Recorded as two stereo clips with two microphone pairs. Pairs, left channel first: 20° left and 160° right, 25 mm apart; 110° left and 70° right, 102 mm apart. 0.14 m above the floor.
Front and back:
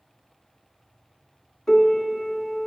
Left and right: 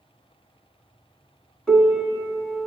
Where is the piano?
35° left, 1.5 m.